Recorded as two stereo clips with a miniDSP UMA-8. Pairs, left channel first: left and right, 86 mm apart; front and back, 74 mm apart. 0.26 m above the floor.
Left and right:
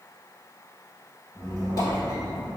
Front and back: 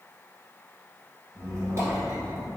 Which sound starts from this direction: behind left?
A squeak, at 1.4 s.